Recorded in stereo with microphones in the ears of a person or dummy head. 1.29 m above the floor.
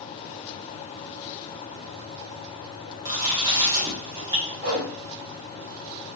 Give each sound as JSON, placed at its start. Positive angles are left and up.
{"t": 3.0, "sound": "chewing", "side_deg": -20, "distance_m": 1.3}
{"t": 4.6, "sound": "a whoosh", "side_deg": -70, "distance_m": 2.0}